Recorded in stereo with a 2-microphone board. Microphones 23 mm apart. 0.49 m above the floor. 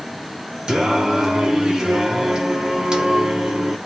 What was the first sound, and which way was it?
Singing, 35° right (ahead or behind).